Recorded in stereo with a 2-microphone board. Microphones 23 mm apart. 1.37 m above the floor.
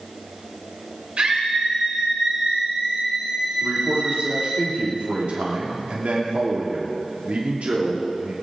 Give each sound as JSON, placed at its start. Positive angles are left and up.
{"t": 1.2, "sound": "a scream", "side_deg": -70, "distance_m": 5.5}
{"t": 3.6, "sound": "a man speaking", "side_deg": -80, "distance_m": 2.5}